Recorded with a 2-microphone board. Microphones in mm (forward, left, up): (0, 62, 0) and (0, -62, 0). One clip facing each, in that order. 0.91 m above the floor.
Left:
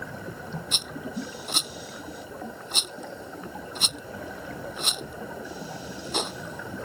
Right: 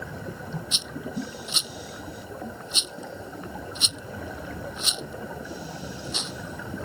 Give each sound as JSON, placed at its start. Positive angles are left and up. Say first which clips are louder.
{"t": 0.7, "sound": "a rattle", "louder": "right 1 dB", "side_deg": 50}